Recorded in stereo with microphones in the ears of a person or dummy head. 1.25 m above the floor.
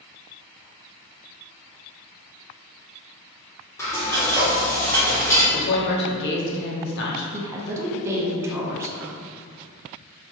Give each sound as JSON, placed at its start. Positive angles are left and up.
{"t": 3.8, "sound": "frying", "side_deg": 15, "distance_m": 1.2}
{"t": 5.5, "sound": "a woman speaking", "side_deg": 60, "distance_m": 1.0}
{"t": 7.3, "sound": "a woman speaking", "side_deg": -10, "distance_m": 0.5}